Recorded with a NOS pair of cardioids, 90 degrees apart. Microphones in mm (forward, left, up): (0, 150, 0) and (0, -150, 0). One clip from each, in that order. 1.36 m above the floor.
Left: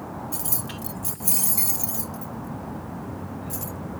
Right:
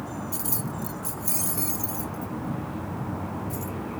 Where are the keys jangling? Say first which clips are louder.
Even; 5° left; by 3.8 s 55° left.